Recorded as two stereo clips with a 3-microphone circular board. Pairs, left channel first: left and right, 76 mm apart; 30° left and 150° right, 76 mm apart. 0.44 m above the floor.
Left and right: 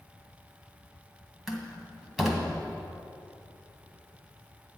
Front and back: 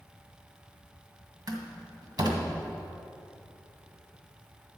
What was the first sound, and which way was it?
A door slam, 175° right.